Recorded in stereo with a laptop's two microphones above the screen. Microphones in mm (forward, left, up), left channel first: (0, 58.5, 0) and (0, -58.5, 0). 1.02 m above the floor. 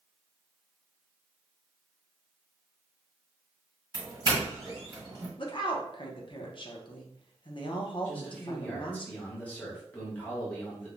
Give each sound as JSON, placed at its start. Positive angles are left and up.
{"t": 3.9, "sound": "a doorbell", "side_deg": -40, "distance_m": 1.6}
{"t": 5.4, "sound": "a woman speaking", "side_deg": 45, "distance_m": 0.5}
{"t": 8.1, "sound": "a man speaking", "side_deg": 10, "distance_m": 0.8}